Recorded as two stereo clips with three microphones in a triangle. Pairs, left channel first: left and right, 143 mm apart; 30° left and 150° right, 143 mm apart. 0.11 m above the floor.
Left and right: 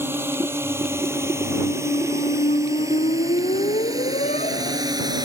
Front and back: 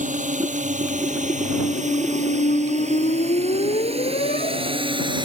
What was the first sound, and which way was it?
A drone, 165° right.